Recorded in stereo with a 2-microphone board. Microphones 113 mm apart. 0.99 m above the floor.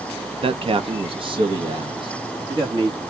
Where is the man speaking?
55° right (ahead or behind), 0.6 m; by 3.0 s 40° right (ahead or behind), 1.7 m.